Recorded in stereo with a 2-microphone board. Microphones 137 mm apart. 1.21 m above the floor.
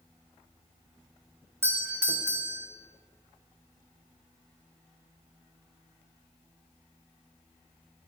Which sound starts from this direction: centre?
A doorbell, at 1.6 s.